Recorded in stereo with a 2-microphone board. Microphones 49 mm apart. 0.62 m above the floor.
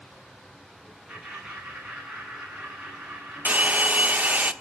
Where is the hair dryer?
35° right (ahead or behind), 0.9 m.